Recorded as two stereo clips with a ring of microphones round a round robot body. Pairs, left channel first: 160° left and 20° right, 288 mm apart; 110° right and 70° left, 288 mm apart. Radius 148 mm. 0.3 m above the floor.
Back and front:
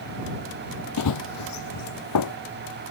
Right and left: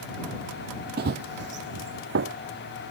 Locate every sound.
1.0 s running footsteps: 125° left; by 2.4 s 120° left